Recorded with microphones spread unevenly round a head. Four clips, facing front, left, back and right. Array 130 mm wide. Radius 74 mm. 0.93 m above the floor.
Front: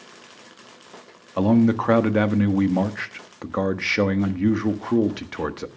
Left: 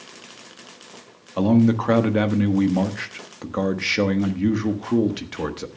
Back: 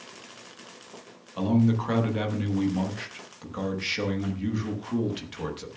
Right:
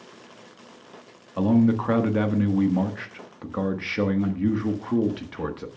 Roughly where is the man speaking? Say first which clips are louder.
Left 2 dB, front 6 dB; ahead left.